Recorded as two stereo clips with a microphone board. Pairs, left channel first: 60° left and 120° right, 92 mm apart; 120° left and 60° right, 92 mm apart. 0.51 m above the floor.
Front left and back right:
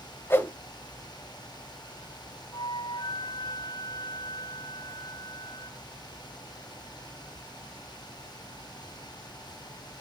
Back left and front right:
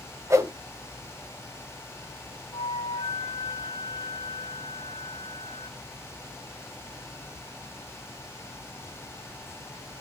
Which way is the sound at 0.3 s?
5° right.